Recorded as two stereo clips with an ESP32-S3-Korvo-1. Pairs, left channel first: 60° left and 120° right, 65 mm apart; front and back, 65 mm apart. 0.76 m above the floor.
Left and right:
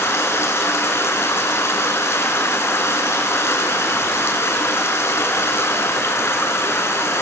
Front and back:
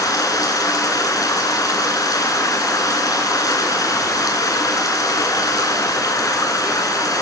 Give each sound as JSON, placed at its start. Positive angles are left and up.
{"t": 0.0, "sound": "running water", "azimuth_deg": 15, "distance_m": 2.5}